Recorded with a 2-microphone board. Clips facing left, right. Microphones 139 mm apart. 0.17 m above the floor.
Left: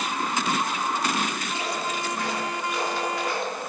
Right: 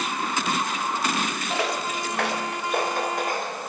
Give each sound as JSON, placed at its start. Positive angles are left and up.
{"t": 1.5, "sound": "footsteps", "side_deg": -80, "distance_m": 1.5}